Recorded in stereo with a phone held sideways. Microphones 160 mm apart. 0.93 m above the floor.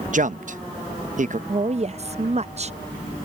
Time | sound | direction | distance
0.1 | a man speaking | 55° right (ahead or behind) | ?
1.5 | a woman speaking | 45° right (ahead or behind) | ?